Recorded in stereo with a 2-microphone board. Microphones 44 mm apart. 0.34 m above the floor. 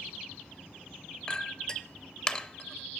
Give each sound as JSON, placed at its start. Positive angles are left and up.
{"t": 1.3, "sound": "a clink", "side_deg": 20, "distance_m": 0.7}